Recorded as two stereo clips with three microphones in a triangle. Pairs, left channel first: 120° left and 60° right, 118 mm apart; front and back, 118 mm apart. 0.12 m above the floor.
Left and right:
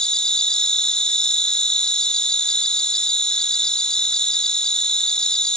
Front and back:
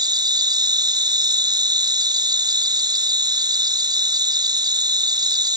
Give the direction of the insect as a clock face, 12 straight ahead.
5 o'clock.